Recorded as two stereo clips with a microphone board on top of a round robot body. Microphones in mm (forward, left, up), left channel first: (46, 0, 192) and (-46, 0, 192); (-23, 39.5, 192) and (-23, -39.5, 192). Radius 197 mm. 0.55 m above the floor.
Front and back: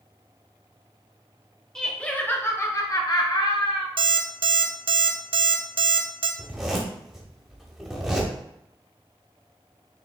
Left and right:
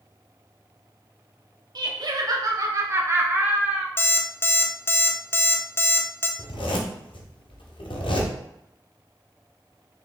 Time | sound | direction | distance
1.8 | laughter | 85° right | 1.7 m
4.0 | an alarm clock | 150° left | 0.7 m
6.4 | a zipper | 95° left | 1.1 m